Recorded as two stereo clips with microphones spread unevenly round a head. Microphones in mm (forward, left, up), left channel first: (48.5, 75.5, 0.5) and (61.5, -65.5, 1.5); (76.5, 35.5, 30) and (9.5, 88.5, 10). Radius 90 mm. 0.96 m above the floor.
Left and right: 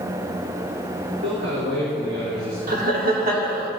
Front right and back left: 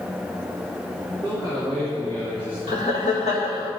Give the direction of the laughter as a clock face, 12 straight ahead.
2 o'clock.